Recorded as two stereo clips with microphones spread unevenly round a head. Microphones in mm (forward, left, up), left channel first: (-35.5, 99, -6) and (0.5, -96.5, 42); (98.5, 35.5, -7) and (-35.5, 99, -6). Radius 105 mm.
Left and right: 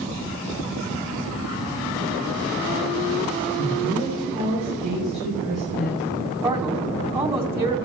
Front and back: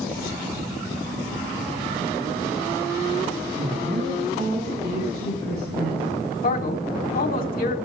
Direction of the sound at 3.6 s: 160° right.